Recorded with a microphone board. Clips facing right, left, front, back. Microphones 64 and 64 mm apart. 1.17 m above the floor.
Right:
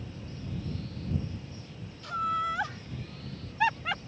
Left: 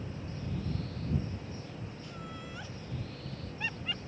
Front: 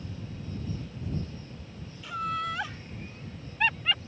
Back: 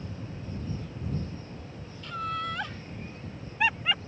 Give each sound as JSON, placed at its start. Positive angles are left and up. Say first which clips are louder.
{"t": 2.0, "sound": "laughter", "louder": "right 15 dB, front 1 dB", "azimuth_deg": -85}